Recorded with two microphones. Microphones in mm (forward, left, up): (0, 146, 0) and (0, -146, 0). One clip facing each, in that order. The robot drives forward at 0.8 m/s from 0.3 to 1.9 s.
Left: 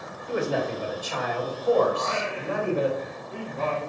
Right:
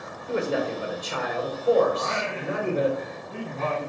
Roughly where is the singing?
Right.